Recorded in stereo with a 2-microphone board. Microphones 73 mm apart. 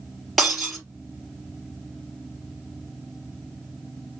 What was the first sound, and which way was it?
Breaking glass, centre (ahead or behind).